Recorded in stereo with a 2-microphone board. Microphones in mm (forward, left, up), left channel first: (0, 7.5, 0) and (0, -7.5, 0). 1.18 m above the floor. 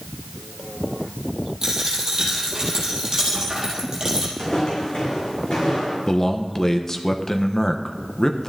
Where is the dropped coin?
35° right (ahead or behind), 4.5 m.